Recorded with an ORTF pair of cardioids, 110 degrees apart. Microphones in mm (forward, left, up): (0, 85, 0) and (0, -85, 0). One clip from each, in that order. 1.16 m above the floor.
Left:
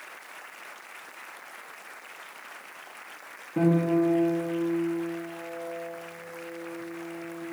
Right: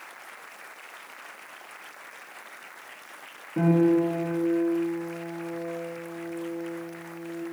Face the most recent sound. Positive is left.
turn(degrees=10)